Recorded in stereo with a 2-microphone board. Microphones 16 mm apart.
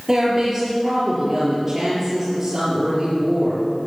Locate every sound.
0.1 s a woman speaking: 25° right (ahead or behind), 5 m